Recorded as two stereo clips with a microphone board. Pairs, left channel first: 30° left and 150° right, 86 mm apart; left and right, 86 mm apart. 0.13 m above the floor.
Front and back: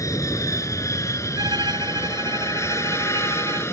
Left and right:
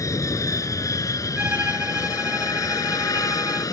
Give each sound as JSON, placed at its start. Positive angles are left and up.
{"t": 0.0, "sound": "an aircraft", "azimuth_deg": 60}
{"t": 1.4, "sound": "a violin", "azimuth_deg": -155}